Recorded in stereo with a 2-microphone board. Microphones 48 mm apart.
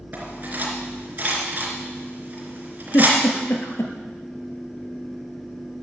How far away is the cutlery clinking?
About 3.5 m.